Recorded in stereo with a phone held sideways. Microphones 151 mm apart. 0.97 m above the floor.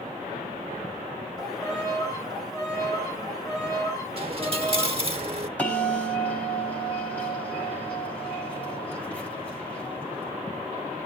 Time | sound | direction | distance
1.4 | a violin | 25° left (ahead or behind) | 3.5 m
4.2 | a dropped coin | 40° right (ahead or behind) | 1.2 m
5.6 | a bell | 10° left (ahead or behind) | 5 m